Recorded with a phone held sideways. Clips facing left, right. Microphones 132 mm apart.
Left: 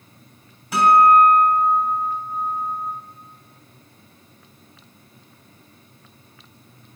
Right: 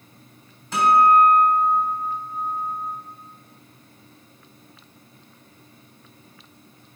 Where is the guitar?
10° left (ahead or behind), 3 m.